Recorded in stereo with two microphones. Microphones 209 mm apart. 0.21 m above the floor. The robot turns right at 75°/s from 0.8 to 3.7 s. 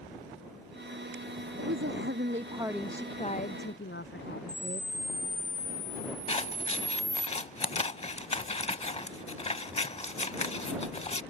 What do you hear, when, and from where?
1.6 s a woman speaking: 95° right; by 4.9 s 65° left
4.5 s a camera shutter: 80° right
6.3 s scissors: 30° left (ahead or behind)